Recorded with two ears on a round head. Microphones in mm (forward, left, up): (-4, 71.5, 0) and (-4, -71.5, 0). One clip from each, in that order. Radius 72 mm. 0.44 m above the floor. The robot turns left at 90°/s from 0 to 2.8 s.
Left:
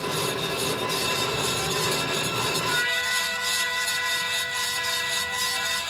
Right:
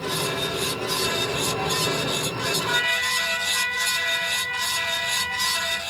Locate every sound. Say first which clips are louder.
2.7 s a trumpet: right 4 dB; 75° right (ahead or behind), 2 m; by 5.8 s 85° right, 2 m